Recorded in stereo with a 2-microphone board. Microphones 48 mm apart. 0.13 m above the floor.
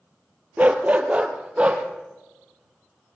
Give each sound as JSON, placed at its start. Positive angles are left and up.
{"t": 0.6, "sound": "a dog barking", "side_deg": -35, "distance_m": 1.4}